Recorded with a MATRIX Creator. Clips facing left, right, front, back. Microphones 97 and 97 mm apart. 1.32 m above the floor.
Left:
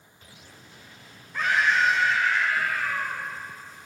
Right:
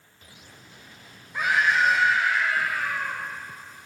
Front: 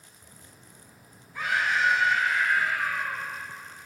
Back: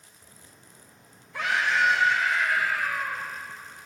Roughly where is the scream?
Behind.